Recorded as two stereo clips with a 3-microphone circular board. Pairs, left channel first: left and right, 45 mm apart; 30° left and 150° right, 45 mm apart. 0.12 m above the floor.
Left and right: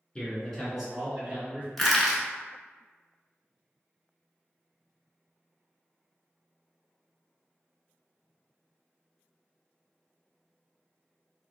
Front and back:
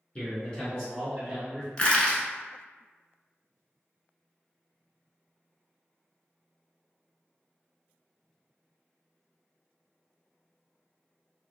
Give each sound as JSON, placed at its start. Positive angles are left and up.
{"t": 0.1, "sound": "a man speaking", "azimuth_deg": 50, "distance_m": 1.6}
{"t": 1.8, "sound": "crushing", "azimuth_deg": 5, "distance_m": 0.8}